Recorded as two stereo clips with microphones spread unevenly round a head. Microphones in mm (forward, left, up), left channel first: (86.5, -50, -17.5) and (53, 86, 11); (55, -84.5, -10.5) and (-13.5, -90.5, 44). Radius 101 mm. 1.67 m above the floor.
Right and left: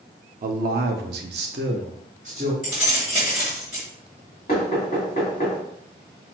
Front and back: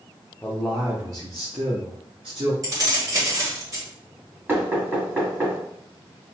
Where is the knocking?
140° right, 2 m.